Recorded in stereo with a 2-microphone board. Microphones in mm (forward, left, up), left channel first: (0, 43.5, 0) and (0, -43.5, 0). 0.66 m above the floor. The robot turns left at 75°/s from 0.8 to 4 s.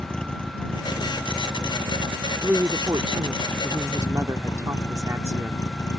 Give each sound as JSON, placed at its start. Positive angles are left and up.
{"t": 0.0, "sound": "a vehicle", "azimuth_deg": 10}
{"t": 2.4, "sound": "a woman speaking", "azimuth_deg": -20}